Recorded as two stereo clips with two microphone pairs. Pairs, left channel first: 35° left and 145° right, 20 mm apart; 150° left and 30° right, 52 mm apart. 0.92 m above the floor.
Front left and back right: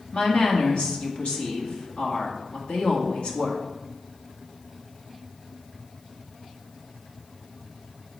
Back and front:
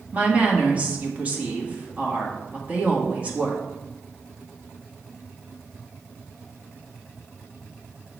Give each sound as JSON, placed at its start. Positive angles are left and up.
{"t": 0.1, "sound": "a woman speaking", "azimuth_deg": 30, "distance_m": 1.6}